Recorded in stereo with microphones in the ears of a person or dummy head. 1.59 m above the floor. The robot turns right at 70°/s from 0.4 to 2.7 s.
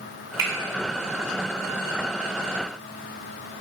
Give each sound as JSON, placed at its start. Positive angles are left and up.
{"t": 0.4, "sound": "a finger snap", "side_deg": -15, "distance_m": 0.8}